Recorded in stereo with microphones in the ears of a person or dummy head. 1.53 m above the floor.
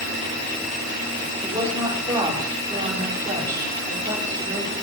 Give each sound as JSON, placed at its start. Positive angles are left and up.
{"t": 1.4, "sound": "a woman speaking", "side_deg": -20, "distance_m": 5.5}